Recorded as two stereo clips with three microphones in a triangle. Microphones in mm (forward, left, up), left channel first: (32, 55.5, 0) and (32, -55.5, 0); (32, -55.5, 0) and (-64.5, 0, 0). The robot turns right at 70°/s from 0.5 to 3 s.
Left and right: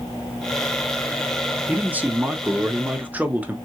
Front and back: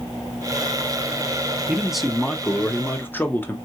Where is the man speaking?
145° right, 0.6 m; by 3.5 s 50° right, 0.6 m.